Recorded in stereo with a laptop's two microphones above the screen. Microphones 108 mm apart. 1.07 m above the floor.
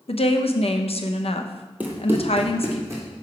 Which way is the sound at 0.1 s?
65° left (ahead or behind).